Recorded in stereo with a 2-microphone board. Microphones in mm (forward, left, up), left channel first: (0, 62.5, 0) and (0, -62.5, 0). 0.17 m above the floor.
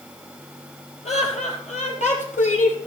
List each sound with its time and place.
1.1 s laughter: 65° left (ahead or behind), 5 m; by 2.8 s 75° left (ahead or behind), 5.5 m